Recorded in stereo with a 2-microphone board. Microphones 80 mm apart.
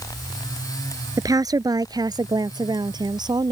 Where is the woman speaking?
50° right (ahead or behind); by 3.5 s 65° right (ahead or behind).